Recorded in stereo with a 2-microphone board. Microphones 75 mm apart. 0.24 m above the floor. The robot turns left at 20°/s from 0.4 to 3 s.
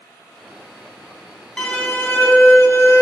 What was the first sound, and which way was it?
A violin, 10° left (ahead or behind).